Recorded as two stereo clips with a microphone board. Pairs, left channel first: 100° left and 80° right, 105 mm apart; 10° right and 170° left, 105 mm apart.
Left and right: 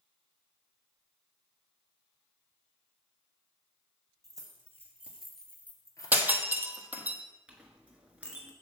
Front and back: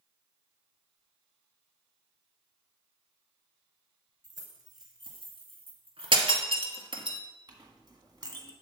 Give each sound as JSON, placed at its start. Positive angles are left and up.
{"t": 4.2, "sound": "keys jangling", "azimuth_deg": -130, "distance_m": 2.5}
{"t": 6.1, "sound": "breaking glass", "azimuth_deg": -150, "distance_m": 1.2}
{"t": 7.5, "sound": "a clink", "azimuth_deg": -155, "distance_m": 1.4}